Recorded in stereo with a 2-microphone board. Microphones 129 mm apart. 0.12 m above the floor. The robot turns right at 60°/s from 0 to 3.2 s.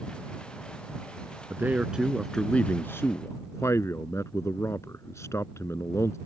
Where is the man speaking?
15° right (ahead or behind); by 6.2 s 20° left (ahead or behind).